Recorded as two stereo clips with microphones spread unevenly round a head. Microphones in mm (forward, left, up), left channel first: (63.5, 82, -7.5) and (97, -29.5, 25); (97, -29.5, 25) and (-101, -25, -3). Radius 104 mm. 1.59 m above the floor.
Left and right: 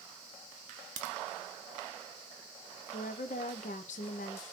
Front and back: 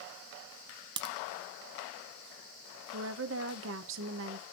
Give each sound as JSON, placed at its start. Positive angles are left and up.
{"t": 1.0, "sound": "a crack", "azimuth_deg": -120, "distance_m": 0.5}
{"t": 2.9, "sound": "a woman speaking", "azimuth_deg": 150, "distance_m": 0.6}